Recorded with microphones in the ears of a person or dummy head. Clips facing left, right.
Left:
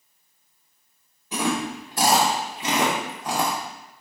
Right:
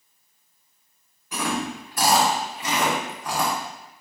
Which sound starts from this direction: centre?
Chewing, at 1.3 s.